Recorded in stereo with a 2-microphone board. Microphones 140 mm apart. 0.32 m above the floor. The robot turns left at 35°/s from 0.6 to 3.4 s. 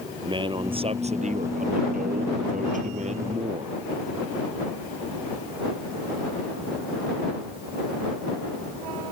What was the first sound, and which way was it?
A man speaking, 35° right.